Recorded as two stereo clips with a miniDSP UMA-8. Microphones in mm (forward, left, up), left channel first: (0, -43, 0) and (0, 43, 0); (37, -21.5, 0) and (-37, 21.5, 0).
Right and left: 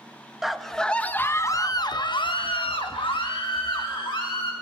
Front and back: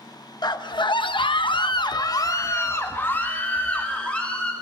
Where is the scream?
5° left, 1.2 m; by 4.5 s 110° right, 2.5 m.